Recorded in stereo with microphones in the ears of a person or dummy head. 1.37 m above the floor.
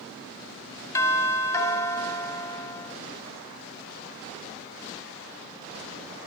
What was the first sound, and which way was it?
A doorbell, 15° left (ahead or behind).